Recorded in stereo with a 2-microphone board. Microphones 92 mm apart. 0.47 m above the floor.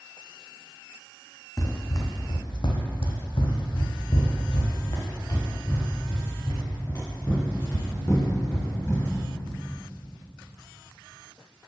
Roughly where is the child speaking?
No child speaking in this recording.